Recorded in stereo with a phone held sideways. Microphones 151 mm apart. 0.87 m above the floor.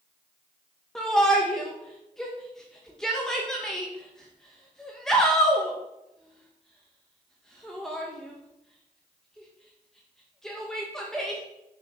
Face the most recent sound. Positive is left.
turn(degrees=5)  # may be behind; listen again after turning